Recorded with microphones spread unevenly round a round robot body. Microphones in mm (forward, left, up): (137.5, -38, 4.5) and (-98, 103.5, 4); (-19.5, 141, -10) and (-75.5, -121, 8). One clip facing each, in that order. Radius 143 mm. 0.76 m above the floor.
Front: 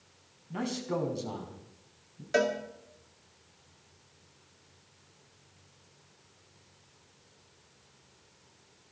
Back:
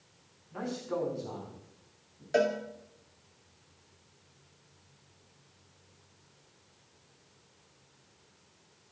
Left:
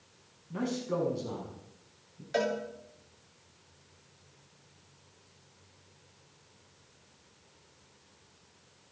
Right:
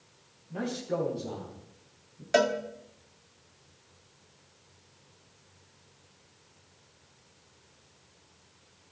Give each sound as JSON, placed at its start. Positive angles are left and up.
{"t": 0.5, "sound": "a man speaking", "azimuth_deg": 5, "distance_m": 5.5}
{"t": 2.3, "sound": "a cowbell", "azimuth_deg": -110, "distance_m": 2.5}